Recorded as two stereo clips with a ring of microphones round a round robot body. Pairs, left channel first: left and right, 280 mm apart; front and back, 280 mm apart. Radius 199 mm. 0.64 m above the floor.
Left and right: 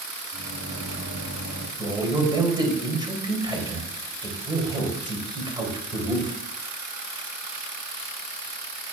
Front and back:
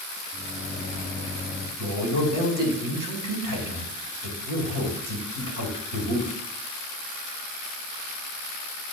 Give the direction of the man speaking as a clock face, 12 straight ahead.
5 o'clock.